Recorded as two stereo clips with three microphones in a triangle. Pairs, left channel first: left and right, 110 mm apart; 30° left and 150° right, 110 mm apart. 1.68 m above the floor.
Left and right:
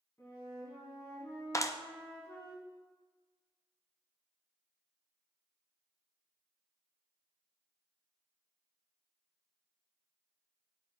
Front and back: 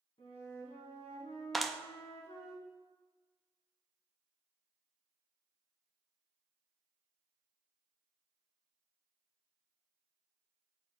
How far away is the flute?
About 4.5 m.